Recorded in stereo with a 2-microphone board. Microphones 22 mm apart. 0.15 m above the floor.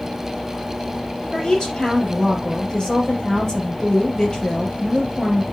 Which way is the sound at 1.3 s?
35° left (ahead or behind).